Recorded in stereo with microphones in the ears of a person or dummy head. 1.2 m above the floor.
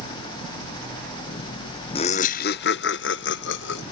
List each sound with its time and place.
1.9 s laughter: 30° left (ahead or behind); by 3.8 s 65° left (ahead or behind)